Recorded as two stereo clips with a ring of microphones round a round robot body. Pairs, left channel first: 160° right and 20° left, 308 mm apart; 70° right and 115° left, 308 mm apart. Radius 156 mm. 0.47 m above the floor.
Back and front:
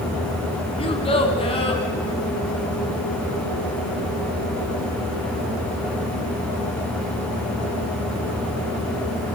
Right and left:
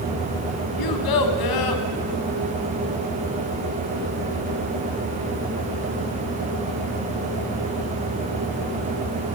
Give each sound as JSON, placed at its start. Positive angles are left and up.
{"t": 0.8, "sound": "a child speaking", "azimuth_deg": -85, "distance_m": 2.5}